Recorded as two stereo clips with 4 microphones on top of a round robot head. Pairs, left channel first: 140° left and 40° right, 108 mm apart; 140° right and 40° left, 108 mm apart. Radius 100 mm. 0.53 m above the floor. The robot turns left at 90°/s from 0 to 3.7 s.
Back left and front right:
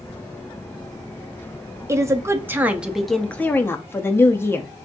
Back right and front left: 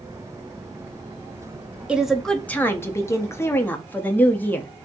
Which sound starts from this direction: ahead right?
A woman speaking, at 1.9 s.